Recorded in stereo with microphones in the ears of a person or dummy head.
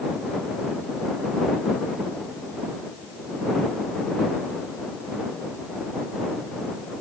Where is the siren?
No siren in this recording.